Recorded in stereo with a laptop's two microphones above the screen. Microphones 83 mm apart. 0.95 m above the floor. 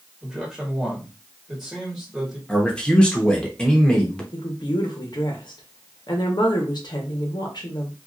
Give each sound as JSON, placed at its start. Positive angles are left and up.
{"t": 0.2, "sound": "a man speaking", "side_deg": -5, "distance_m": 1.8}
{"t": 2.5, "sound": "a man speaking", "side_deg": 10, "distance_m": 0.8}
{"t": 4.3, "sound": "a woman speaking", "side_deg": 60, "distance_m": 1.2}